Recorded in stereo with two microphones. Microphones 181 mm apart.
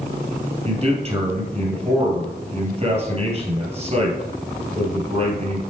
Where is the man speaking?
35° right (ahead or behind), 2.5 m.